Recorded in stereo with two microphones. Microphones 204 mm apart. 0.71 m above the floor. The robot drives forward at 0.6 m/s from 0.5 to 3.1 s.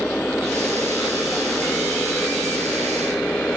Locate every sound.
0.0 s a motorcycle: 5° left (ahead or behind)